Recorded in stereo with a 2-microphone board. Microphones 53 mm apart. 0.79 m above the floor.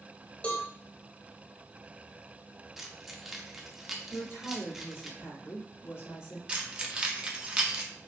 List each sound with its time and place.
0.4 s a cowbell: 25° left (ahead or behind), 1.0 m
2.8 s keys jangling: 5° right (ahead or behind), 0.7 m
4.1 s a woman speaking: 60° left (ahead or behind), 2.5 m
6.5 s keys jangling: 20° right (ahead or behind), 0.7 m